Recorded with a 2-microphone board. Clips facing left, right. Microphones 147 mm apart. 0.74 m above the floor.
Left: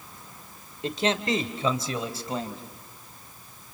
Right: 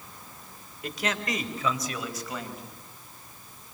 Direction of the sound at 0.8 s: 25° left (ahead or behind).